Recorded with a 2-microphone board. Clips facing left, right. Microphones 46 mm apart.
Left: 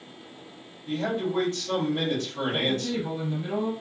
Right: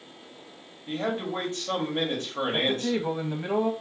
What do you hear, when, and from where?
0.9 s a man speaking: 30° right (ahead or behind), 1.1 m
2.5 s a man speaking: 40° right (ahead or behind), 0.6 m